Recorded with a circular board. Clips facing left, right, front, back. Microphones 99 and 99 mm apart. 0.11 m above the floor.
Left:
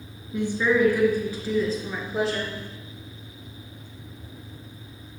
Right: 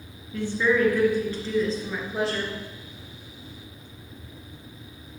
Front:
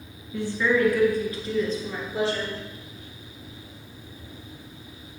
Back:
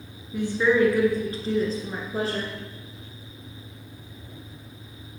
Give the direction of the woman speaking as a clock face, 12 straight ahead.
7 o'clock.